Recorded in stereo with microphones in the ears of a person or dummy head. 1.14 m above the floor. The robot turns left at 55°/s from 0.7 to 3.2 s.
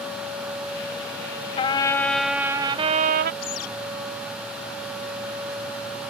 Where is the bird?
50° left (ahead or behind).